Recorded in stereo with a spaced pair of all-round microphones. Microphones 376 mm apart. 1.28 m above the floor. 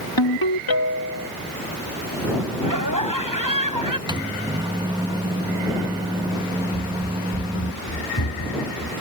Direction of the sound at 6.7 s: 55° left (ahead or behind).